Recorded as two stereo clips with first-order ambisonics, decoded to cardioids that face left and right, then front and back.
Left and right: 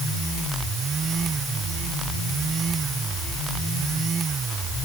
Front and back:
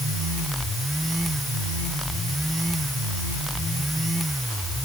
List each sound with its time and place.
Only background noise.